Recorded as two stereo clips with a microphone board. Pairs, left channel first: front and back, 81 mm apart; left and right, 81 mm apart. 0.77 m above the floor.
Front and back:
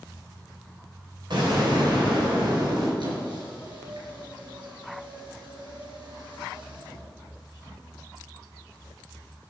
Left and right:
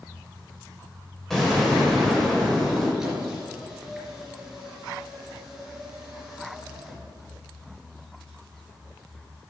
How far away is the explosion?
About 3.5 m.